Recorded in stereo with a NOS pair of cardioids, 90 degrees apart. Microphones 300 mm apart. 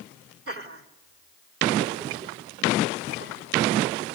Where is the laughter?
45° right, 3 m.